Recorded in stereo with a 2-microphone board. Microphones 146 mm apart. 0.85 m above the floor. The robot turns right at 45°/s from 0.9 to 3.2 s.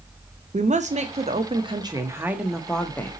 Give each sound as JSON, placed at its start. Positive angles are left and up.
{"t": 0.5, "sound": "a woman speaking", "azimuth_deg": -80, "distance_m": 0.6}